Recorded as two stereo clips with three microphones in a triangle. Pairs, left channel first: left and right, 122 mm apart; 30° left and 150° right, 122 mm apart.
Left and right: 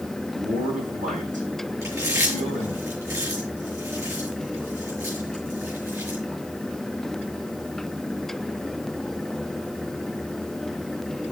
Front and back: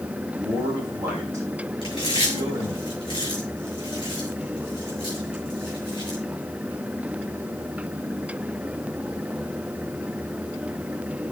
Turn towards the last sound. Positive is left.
turn(degrees=-20)